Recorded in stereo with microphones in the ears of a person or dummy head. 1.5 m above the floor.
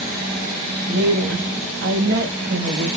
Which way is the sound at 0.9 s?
60° right (ahead or behind).